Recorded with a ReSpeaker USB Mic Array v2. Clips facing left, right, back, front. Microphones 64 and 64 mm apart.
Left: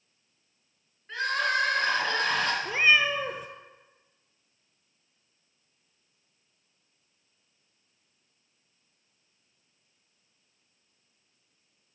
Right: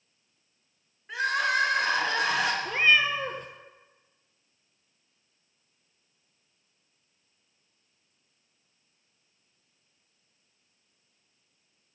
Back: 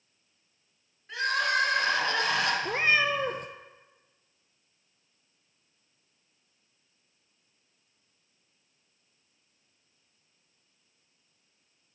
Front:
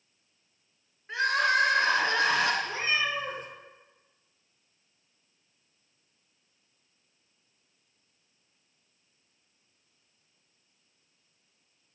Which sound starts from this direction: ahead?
Crying, at 1.1 s.